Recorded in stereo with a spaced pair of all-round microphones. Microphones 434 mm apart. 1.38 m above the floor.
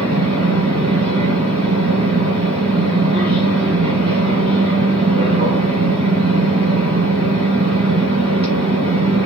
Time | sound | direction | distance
0.0 | a machine running | 15° right (ahead or behind) | 1.6 m